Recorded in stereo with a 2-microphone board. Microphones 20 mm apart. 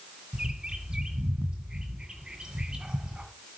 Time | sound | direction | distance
0.3 | a bird | 55° right (ahead or behind) | 2.5 m